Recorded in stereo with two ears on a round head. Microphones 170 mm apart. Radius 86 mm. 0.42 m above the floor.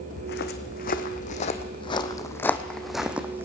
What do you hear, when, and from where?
0.2 s footsteps: 60° left (ahead or behind), 1.7 m; by 3.5 s 15° right (ahead or behind), 1.4 m